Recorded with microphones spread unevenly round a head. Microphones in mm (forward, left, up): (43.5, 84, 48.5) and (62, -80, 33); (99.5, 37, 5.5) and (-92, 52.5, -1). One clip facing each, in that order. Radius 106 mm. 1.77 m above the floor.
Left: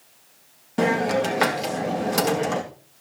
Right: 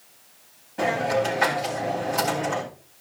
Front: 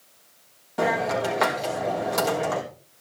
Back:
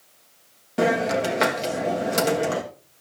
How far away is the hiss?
About 3 m.